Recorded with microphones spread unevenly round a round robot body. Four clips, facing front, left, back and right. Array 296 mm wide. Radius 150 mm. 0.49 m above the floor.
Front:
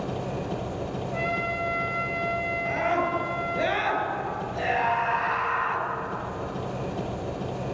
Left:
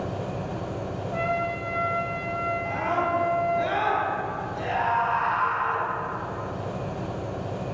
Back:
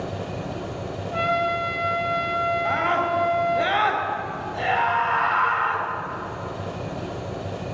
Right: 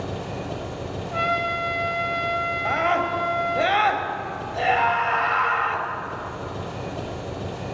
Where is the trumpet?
160° right, 1.4 m.